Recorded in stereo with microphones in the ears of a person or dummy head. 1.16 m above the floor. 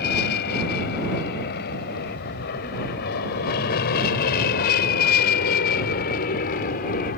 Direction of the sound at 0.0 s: 55° left (ahead or behind).